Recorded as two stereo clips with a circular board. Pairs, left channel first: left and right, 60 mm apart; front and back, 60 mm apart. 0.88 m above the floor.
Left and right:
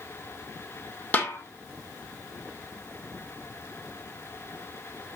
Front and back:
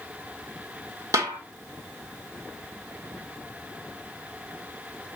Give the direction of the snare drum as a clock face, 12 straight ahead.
7 o'clock.